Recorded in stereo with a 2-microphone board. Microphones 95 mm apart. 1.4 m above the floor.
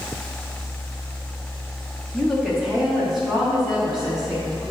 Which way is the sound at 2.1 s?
5° left (ahead or behind).